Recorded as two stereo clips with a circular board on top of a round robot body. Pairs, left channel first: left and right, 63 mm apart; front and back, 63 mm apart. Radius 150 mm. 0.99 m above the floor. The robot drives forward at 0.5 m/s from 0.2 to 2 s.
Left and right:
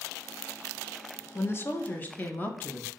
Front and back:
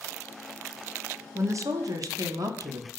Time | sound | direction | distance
1.4 | a woman speaking | 140° left | 0.5 m